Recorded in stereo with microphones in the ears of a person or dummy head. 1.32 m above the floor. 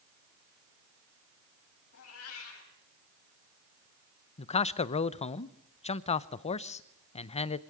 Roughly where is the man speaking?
Left.